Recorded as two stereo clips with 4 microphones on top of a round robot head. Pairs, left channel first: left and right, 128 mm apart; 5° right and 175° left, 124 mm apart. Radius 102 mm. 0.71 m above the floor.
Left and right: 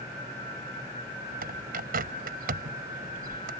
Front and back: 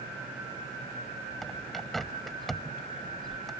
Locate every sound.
1.4 s a bird: 90° right